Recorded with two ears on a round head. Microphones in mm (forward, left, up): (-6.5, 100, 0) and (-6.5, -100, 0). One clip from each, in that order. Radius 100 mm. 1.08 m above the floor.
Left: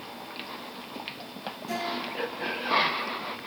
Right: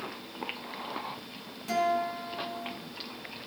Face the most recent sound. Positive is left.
turn(degrees=-30)  # may be behind; listen again after turning